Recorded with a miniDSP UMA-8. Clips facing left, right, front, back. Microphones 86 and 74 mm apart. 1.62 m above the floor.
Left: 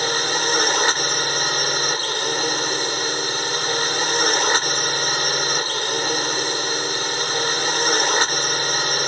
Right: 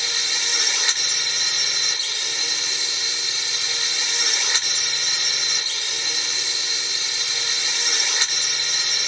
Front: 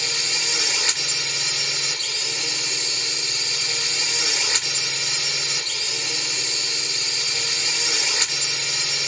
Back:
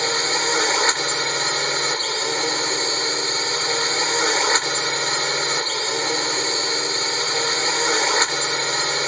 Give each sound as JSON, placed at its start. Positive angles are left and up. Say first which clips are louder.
{"t": 0.0, "sound": "a drone", "louder": "left 10 dB, back 8 dB", "azimuth_deg": 135}